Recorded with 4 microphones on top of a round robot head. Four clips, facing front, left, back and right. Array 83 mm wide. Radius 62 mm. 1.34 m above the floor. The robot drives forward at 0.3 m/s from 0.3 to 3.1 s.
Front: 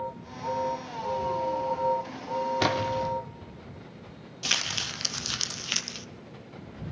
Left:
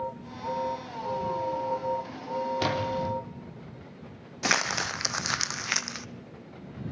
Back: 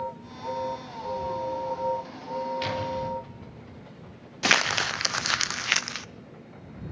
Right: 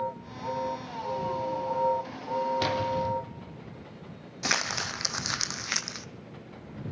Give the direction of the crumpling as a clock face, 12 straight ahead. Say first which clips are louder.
Left 3 dB, back 10 dB; 7 o'clock.